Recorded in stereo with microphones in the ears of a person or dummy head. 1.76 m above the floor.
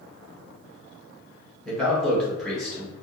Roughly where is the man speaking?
Centre.